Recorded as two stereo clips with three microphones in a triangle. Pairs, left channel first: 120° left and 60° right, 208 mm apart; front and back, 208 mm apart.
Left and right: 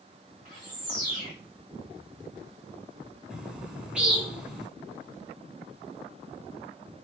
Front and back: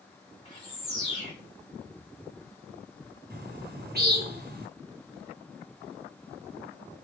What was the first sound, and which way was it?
A bird, 45° right.